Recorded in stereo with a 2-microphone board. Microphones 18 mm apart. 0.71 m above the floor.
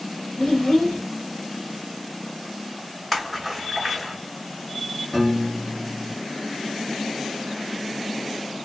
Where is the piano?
25° left (ahead or behind), 1.9 m.